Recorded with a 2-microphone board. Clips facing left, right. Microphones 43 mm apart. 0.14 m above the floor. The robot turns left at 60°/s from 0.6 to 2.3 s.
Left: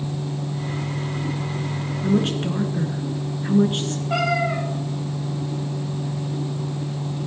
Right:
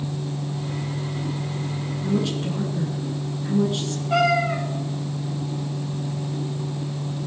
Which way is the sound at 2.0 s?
40° left (ahead or behind).